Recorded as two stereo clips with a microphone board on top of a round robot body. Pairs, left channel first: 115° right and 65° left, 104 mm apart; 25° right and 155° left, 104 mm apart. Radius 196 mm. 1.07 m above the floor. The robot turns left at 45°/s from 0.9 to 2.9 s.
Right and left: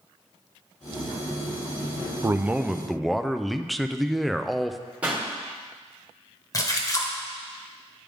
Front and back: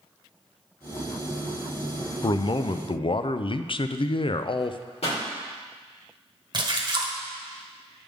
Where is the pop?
10° right, 2.5 m.